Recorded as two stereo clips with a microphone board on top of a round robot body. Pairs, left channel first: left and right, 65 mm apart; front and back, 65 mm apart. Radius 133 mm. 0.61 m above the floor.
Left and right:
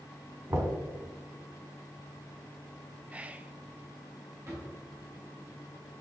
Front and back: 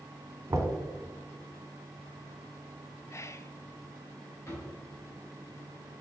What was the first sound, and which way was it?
Knocking, 135° right.